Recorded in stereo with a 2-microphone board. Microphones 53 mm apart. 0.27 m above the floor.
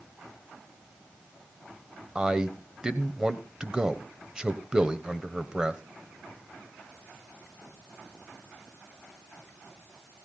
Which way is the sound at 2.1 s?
15° right (ahead or behind).